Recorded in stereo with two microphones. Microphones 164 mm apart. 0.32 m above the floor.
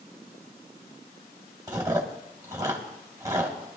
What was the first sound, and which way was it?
Chewing, 20° right (ahead or behind).